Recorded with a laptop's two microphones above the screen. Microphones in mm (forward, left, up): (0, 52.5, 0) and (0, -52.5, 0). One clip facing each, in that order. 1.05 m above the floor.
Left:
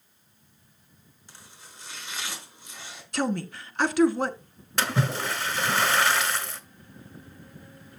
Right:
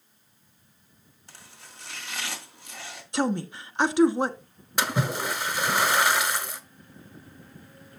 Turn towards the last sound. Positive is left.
turn(degrees=-15)  # may be behind; listen again after turning